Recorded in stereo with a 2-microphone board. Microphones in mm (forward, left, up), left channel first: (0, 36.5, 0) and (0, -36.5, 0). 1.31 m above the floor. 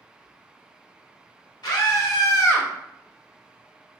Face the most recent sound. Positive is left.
turn(degrees=25)  # may be behind; listen again after turning